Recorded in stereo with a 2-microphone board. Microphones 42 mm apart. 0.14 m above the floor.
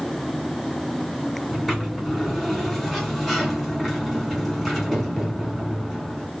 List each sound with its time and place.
1.5 s a sliding door: centre (ahead or behind), 1.5 m